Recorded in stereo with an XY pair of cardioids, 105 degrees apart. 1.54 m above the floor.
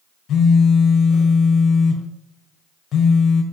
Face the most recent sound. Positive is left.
turn(degrees=65)